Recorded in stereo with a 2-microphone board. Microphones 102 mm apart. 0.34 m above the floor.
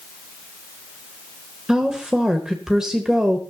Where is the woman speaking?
5° right (ahead or behind), 1.2 m.